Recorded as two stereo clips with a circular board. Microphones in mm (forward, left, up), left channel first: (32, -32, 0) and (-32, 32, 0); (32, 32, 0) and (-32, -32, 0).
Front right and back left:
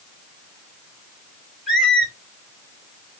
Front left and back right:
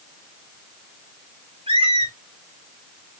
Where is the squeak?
140° right, 3.5 m.